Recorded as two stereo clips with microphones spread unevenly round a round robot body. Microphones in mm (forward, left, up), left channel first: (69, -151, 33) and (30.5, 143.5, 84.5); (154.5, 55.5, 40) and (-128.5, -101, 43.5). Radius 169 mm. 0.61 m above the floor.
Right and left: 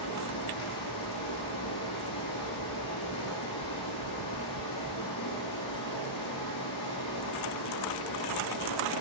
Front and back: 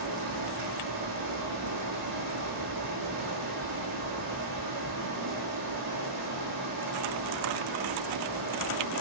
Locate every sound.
0.0 s running water: 110° right, 6.5 m